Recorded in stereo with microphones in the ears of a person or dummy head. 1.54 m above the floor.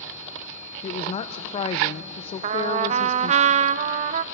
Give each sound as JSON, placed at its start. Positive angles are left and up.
{"t": 0.8, "sound": "a woman speaking", "side_deg": 40, "distance_m": 0.6}
{"t": 2.4, "sound": "a trumpet", "side_deg": -35, "distance_m": 0.6}